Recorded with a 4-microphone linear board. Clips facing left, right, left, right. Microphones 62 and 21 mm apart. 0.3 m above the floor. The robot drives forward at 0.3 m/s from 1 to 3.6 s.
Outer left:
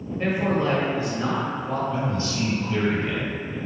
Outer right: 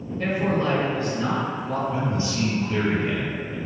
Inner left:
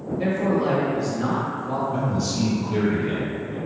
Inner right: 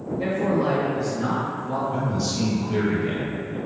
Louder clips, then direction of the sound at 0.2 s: Even, inner left 1 dB; 20° left (ahead or behind).